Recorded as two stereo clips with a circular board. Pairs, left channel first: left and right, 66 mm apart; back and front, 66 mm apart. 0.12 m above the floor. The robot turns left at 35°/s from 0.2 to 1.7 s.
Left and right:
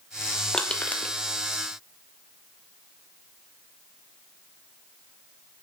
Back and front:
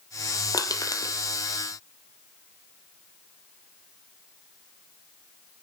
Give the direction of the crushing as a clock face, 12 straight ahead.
6 o'clock.